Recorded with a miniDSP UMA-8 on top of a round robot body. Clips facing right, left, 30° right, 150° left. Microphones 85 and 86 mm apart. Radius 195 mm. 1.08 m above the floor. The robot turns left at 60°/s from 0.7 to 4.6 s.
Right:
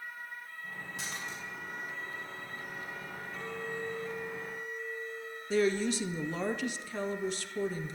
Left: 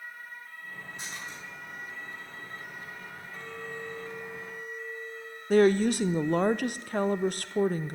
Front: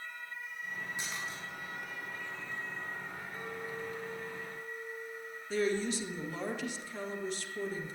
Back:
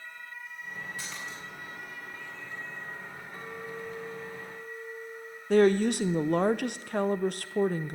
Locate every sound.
1.0 s a splash: 100° right, 6 m; by 1.4 s 125° right, 6 m
3.3 s a clink: 175° left, 2 m; by 5.4 s 100° left, 2 m
5.5 s a woman speaking: 125° left, 0.6 m